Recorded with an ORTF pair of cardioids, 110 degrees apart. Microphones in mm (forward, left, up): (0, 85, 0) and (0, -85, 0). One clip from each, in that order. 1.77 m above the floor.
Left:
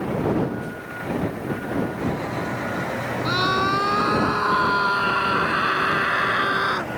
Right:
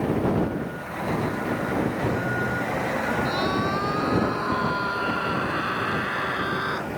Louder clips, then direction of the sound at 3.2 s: Left 4 dB; 45° left.